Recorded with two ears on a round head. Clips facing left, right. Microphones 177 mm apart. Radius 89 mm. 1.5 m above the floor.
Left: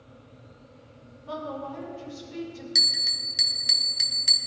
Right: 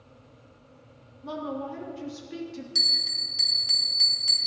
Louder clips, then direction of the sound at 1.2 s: Right 2 dB; 75° right (ahead or behind).